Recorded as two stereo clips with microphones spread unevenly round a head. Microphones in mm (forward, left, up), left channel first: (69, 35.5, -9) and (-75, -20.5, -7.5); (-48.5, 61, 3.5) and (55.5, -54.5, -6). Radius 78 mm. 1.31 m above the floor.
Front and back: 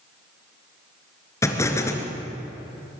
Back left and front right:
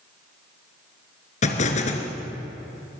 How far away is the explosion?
About 3 m.